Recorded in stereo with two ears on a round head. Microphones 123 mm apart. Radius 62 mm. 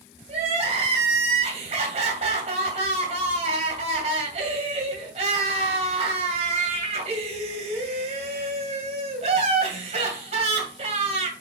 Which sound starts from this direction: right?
Crying, at 0.3 s.